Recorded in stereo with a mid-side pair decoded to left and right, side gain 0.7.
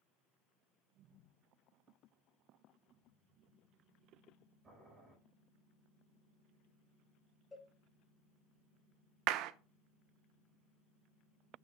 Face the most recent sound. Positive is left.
turn(degrees=-60)